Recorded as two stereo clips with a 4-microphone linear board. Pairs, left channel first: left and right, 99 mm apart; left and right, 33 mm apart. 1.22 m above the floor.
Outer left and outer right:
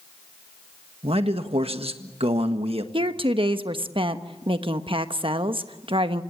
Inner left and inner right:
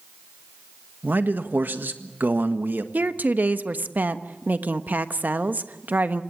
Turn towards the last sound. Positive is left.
turn(degrees=-60)  # may be behind; listen again after turning